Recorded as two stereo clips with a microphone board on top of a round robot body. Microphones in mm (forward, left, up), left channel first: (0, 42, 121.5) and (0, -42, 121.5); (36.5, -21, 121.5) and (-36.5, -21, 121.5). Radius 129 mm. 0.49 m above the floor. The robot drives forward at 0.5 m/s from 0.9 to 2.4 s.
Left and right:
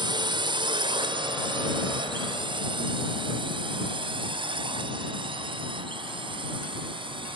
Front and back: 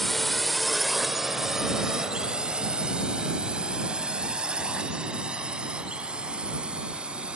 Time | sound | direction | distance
0.0 | a drone | 85° right | ?